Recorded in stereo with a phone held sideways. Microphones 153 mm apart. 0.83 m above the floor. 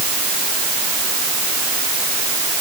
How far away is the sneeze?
I don't hear a sneeze.